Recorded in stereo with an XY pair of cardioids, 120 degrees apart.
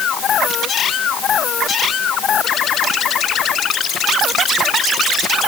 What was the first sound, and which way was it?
Only background noise.